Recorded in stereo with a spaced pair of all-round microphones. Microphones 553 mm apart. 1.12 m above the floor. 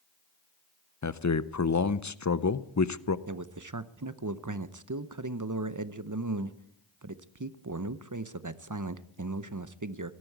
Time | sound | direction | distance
1.0 | a man speaking | 35° left (ahead or behind) | 0.6 m
3.3 | a man speaking | 35° right (ahead or behind) | 0.7 m